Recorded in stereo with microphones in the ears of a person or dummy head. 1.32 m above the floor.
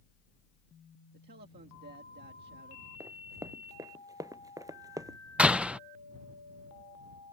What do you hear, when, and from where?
1.1 s a man speaking: 55° right (ahead or behind)
3.0 s running footsteps: 20° right (ahead or behind)
5.4 s a door slam: centre (ahead or behind)